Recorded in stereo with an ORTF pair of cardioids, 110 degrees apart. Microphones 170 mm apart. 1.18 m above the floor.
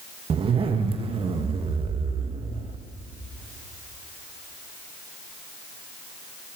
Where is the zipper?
35° right, 0.8 m.